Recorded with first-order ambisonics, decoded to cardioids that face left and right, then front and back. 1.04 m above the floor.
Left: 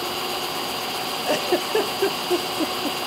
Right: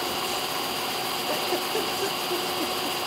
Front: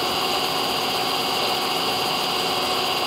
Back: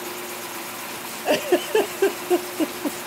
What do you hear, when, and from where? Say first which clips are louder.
0.0 s an engine running: left 2 dB, front 10 dB; 5° left
1.2 s a giggle: left 7 dB, back 1 dB; 155° left